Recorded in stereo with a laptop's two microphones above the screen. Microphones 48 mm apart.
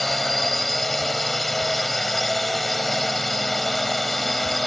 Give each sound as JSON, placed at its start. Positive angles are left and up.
{"t": 0.0, "sound": "a drone", "side_deg": 5}